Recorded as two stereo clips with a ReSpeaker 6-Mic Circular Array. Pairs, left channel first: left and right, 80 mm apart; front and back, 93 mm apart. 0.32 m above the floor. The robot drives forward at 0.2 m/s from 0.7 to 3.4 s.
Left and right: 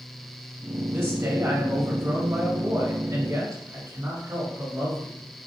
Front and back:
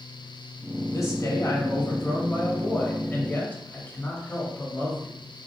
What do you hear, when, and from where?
0.9 s a man speaking: 40° right, 1.4 m; by 5.3 s 60° right, 1.2 m